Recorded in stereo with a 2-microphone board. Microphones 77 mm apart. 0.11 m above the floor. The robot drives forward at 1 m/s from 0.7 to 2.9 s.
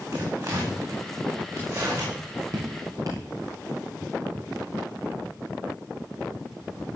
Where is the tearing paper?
45° right (ahead or behind), 9.5 m; by 2.1 s 40° right (ahead or behind), 10.5 m.